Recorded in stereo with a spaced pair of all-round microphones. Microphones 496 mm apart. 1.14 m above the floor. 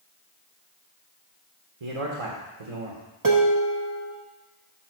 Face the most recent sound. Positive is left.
turn(degrees=-40)  # may be behind; listen again after turning